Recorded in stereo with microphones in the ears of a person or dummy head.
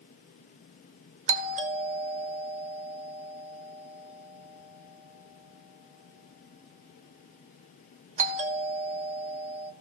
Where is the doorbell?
30° right (ahead or behind), 1.2 m.